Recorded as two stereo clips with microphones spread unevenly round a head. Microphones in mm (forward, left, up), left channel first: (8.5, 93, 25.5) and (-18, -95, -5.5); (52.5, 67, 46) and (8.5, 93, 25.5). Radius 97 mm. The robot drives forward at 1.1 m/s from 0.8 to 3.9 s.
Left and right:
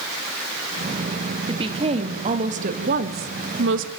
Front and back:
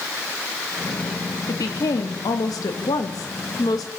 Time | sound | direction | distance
1.5 | a woman speaking | 35° right | 3.5 m